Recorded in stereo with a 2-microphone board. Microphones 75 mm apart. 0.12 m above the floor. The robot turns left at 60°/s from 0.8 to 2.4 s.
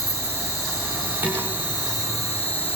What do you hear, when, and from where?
0.0 s an insect: 125° left, 9.5 m; by 2.8 s 25° left, 9.5 m
1.2 s dishes clattering: 15° right (ahead or behind), 7 m; by 1.5 s 30° right (ahead or behind), 7 m